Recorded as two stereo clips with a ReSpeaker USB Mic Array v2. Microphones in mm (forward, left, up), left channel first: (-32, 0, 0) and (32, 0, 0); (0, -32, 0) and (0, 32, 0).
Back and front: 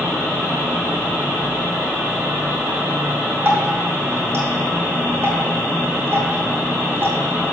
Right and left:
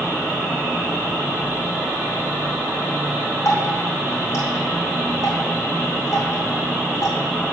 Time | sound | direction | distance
3.5 | dripping | 50° right | 3 m